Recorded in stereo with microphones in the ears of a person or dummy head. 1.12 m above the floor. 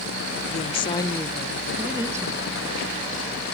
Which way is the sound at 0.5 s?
40° left (ahead or behind).